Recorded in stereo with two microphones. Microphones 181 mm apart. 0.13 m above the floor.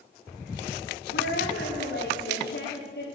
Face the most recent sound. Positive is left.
turn(degrees=60)  # may be behind; listen again after turning